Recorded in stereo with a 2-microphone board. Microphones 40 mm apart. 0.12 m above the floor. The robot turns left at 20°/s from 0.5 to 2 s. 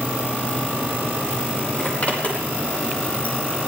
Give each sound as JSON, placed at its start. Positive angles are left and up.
{"t": 1.8, "sound": "a zipper", "side_deg": 45, "distance_m": 4.5}